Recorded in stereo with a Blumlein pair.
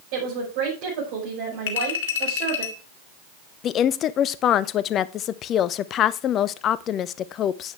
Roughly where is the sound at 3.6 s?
Ahead left.